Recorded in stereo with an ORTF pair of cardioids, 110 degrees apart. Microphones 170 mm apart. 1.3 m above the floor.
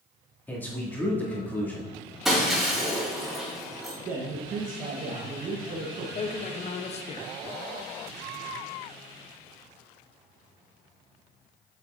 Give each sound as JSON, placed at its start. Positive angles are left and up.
{"t": 0.5, "sound": "a man speaking", "azimuth_deg": 10, "distance_m": 2.5}
{"t": 2.2, "sound": "breaking glass", "azimuth_deg": 0, "distance_m": 3.0}
{"t": 4.0, "sound": "a man speaking", "azimuth_deg": -50, "distance_m": 1.2}
{"t": 6.2, "sound": "a man speaking", "azimuth_deg": 40, "distance_m": 0.9}